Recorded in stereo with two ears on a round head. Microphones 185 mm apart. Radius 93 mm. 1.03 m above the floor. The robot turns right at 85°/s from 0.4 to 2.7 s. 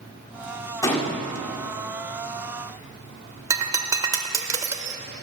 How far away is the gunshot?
About 1.5 m.